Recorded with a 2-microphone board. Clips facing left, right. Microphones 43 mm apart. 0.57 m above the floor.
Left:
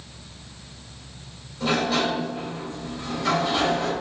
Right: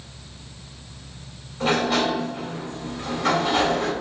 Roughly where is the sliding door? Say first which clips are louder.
Right 2 dB; right.